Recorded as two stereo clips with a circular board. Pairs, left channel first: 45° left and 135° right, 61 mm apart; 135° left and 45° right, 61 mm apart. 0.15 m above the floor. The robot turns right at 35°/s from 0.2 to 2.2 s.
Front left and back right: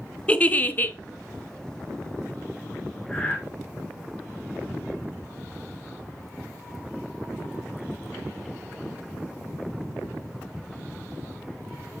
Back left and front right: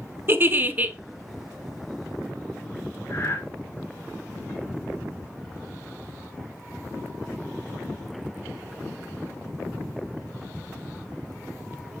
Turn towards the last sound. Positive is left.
turn(degrees=110)